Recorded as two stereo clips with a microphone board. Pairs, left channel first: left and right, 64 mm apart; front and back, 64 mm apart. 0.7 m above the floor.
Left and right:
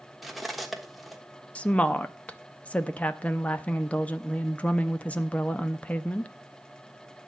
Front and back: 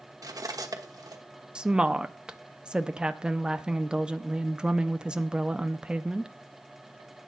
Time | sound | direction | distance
0.2 | cutlery clinking | 175° right | 1.1 m
1.6 | a woman speaking | 125° left | 0.6 m